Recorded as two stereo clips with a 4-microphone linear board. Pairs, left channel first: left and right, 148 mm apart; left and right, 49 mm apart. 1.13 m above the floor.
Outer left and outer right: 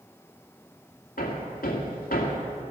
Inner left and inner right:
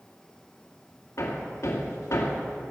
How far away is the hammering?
About 2.5 m.